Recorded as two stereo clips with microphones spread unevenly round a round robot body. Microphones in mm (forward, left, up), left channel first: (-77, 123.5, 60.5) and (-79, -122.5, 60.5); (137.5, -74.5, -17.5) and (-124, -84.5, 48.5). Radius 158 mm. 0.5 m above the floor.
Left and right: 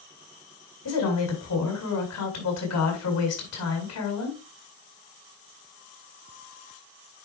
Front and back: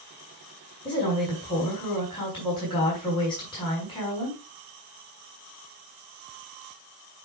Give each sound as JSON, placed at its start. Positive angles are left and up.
{"t": 0.8, "sound": "a woman speaking", "azimuth_deg": 75, "distance_m": 4.5}